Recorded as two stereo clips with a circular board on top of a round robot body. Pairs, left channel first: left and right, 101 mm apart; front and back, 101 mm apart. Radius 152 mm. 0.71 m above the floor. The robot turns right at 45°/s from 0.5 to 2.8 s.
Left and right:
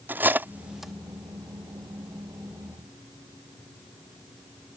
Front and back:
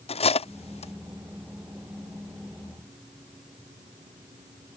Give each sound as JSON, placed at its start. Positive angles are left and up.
{"t": 0.1, "sound": "cutlery clinking", "azimuth_deg": -15}